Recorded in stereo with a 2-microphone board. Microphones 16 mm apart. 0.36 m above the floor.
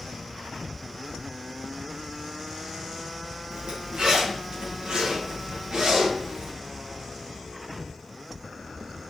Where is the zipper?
70° right (ahead or behind), 4 m.